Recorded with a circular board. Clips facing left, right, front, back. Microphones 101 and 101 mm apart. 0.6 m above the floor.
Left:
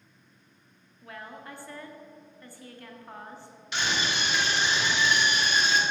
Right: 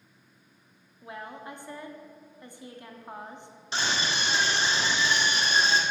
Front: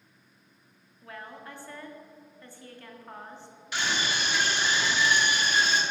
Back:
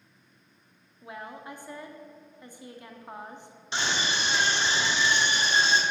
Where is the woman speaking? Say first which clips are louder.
Right 3 dB, back 2 dB; 130° right, 0.7 m.